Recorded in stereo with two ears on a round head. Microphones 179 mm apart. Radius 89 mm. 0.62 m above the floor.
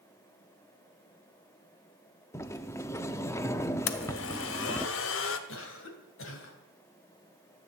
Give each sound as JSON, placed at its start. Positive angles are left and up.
{"t": 2.3, "sound": "a sliding door", "side_deg": 15, "distance_m": 0.7}
{"t": 3.9, "sound": "a blender", "side_deg": 70, "distance_m": 1.0}
{"t": 5.5, "sound": "a cough", "side_deg": 70, "distance_m": 3.0}